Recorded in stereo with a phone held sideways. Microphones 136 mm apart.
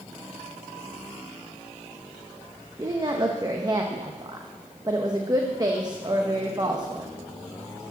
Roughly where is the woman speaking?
Right.